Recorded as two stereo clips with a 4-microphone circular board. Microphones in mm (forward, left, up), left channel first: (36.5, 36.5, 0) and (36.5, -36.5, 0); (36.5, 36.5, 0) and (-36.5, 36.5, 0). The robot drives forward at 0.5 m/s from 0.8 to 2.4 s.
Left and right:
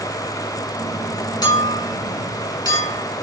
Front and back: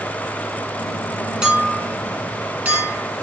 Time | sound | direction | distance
1.4 | a clink | 105° left | 2 m